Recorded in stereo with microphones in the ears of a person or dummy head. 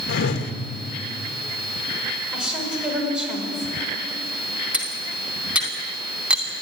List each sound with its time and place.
0.1 s a whoosh: 70° left (ahead or behind), 1.9 m
2.3 s a woman speaking: centre (ahead or behind), 6 m
4.7 s cutlery clinking: 10° right (ahead or behind), 2.5 m